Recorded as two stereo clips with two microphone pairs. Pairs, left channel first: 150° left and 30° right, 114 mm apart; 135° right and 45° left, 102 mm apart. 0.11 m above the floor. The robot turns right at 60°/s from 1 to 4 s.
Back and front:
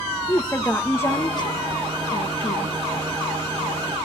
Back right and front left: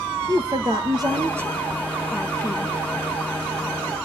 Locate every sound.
0.3 s a woman speaking: 85° left, 2.5 m; by 2.7 s 170° right, 2.5 m